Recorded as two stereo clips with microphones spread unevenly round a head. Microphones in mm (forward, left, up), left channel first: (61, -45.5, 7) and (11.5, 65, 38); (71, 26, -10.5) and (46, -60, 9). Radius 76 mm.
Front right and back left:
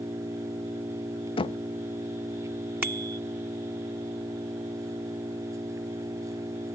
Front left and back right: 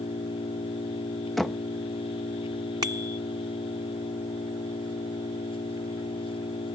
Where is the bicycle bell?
170° right.